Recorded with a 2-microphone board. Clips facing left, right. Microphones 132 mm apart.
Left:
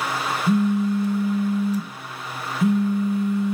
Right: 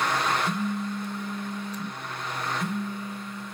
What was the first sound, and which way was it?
A phone buzzing, 70° left (ahead or behind).